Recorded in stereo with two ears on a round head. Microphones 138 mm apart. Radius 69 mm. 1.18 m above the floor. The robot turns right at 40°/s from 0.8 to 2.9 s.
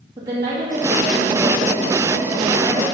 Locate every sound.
0.2 s a woman speaking: 25° right, 2.5 m; by 2.8 s 60° left, 2.5 m